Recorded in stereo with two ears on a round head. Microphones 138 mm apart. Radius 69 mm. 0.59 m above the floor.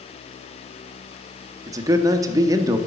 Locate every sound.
1.7 s a man speaking: 20° right (ahead or behind), 0.7 m